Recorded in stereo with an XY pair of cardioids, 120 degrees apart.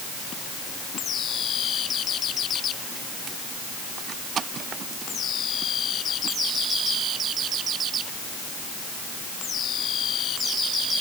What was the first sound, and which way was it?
Only background noise.